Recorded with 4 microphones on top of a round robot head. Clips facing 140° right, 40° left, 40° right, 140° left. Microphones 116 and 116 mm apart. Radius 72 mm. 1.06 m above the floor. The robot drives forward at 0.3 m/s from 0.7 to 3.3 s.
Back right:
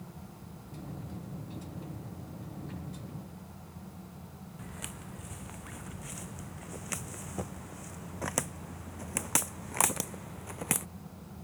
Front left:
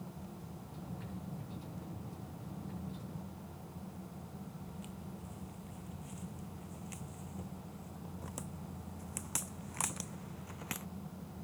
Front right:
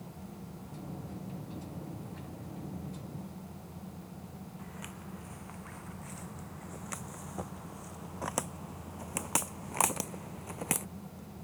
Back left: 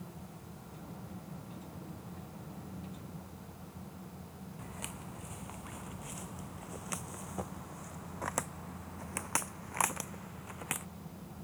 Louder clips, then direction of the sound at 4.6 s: Back right 2 dB, even; 155° right.